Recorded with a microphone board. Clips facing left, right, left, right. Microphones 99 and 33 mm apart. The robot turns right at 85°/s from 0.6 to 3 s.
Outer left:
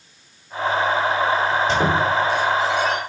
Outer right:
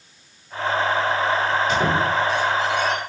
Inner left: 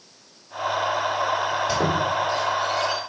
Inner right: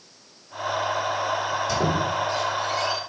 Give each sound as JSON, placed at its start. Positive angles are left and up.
{"t": 1.7, "sound": "a squeak", "side_deg": 30, "distance_m": 2.5}